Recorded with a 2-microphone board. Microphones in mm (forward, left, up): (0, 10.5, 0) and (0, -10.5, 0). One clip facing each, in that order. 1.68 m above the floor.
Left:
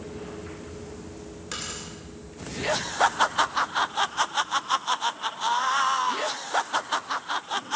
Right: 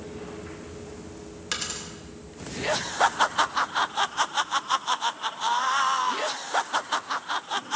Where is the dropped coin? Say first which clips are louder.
Right 4 dB; 35° right (ahead or behind), 3 m.